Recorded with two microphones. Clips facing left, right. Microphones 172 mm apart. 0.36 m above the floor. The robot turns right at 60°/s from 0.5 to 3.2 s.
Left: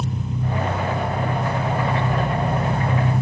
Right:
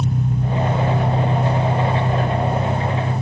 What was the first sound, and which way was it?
An engine running, 75° right.